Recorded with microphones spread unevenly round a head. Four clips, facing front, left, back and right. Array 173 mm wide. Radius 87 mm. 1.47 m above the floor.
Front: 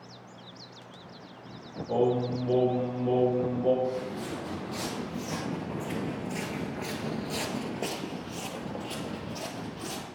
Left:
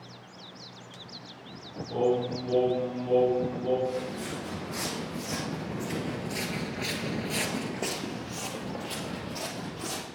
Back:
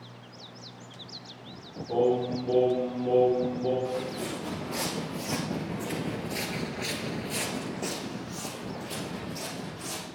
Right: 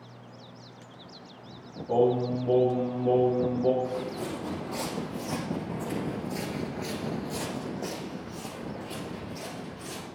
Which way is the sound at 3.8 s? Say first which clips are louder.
Even, even; 125° right.